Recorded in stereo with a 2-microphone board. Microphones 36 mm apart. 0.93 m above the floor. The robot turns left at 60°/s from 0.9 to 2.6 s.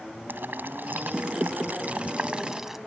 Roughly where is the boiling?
Right.